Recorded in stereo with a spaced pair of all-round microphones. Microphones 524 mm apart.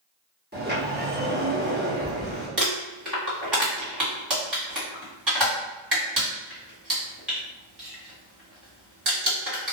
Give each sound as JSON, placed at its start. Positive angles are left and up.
{"t": 0.5, "sound": "a sliding door", "side_deg": -20, "distance_m": 0.9}
{"t": 2.6, "sound": "crumpling", "side_deg": -50, "distance_m": 1.9}